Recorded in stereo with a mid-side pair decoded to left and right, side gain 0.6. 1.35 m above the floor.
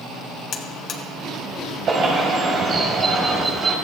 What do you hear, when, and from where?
0.5 s a buzzer: 45° left, 1.8 m
1.9 s a bird: 45° right, 4.5 m